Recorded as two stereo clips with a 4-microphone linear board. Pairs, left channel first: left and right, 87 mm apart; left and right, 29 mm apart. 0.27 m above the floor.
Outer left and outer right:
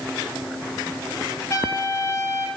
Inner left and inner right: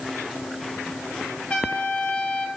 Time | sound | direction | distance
1.5 | a trumpet | 40° left (ahead or behind) | 3.5 m